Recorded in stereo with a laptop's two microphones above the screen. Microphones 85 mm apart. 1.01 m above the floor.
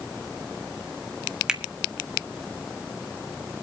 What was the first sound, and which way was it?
A finger snap, 10° right (ahead or behind).